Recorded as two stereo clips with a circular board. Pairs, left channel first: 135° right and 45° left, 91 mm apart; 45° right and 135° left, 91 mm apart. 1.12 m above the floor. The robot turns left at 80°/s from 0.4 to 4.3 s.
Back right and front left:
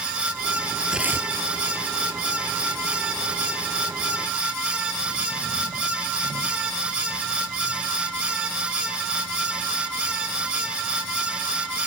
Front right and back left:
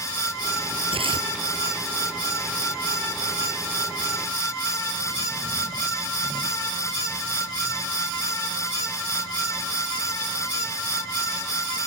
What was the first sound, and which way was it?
Tearing paper, 130° left.